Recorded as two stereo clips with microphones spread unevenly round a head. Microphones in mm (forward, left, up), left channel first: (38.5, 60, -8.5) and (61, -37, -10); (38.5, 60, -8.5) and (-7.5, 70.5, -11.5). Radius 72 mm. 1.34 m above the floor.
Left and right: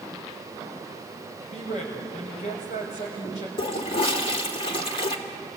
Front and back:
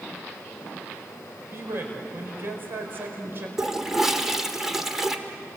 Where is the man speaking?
125° left, 5.5 m.